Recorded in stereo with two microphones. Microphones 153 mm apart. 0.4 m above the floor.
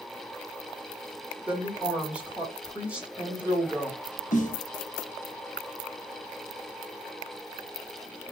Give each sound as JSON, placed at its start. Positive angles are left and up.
{"t": 1.5, "sound": "a woman speaking", "side_deg": -10, "distance_m": 1.3}
{"t": 4.3, "sound": "a snare drum", "side_deg": 55, "distance_m": 0.7}